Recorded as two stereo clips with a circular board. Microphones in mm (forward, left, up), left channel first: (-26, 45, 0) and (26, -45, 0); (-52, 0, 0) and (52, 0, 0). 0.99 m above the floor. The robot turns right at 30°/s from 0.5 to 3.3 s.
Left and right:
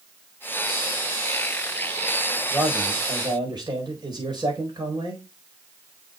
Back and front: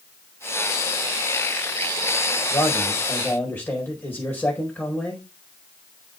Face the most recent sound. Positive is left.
turn(degrees=-110)